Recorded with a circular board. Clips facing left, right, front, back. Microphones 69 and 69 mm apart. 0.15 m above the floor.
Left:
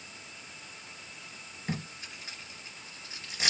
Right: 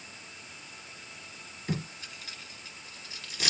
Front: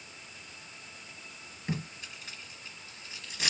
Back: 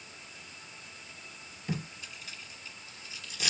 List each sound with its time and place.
1.7 s tape being pulled: 35° left, 2 m